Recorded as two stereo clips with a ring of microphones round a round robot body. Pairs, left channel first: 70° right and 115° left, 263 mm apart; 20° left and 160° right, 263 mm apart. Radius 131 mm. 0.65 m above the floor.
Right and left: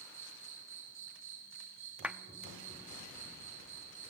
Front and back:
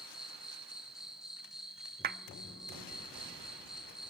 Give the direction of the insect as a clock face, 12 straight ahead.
8 o'clock.